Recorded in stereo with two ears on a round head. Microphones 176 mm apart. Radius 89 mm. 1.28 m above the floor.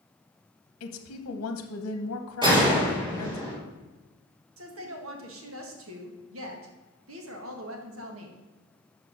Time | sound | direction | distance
0.8 | a woman speaking | 80° left | 0.9 m
2.4 | a gunshot | 25° right (ahead or behind) | 4 m
4.6 | a woman speaking | 75° right (ahead or behind) | 1.5 m